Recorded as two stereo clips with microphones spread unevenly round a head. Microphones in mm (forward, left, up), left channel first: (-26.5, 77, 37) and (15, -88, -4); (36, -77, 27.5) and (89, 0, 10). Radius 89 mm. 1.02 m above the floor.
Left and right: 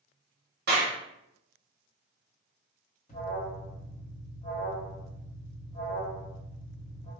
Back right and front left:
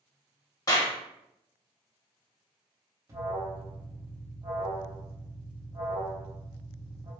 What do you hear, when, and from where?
0.7 s a clap: 70° right, 0.9 m
3.1 s an alarm: 55° left, 1.0 m